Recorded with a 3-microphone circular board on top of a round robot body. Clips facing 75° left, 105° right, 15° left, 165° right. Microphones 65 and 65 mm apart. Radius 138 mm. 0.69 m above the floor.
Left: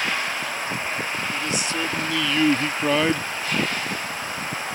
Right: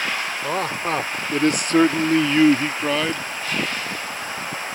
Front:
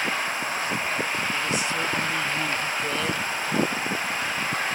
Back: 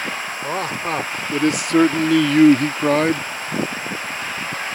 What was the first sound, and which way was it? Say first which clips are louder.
A man speaking: right 4 dB, back 4 dB; 125° right.